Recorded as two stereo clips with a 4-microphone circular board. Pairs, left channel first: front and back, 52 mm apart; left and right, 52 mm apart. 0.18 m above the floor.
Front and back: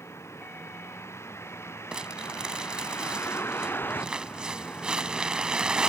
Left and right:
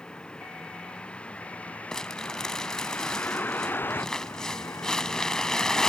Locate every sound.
0.0 s a vehicle: 20° left; by 5.9 s 75° left
1.9 s crumpling: 145° left